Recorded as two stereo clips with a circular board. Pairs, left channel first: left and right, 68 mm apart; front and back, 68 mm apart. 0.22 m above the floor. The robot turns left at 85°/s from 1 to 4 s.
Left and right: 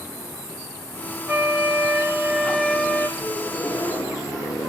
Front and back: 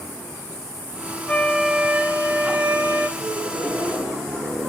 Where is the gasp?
175° left, 4 m; by 4.7 s 110° left, 4 m.